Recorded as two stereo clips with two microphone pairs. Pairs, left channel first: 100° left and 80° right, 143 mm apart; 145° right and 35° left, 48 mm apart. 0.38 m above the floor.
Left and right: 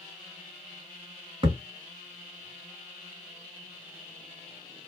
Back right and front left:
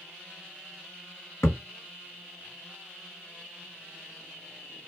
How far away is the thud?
About 1.4 m.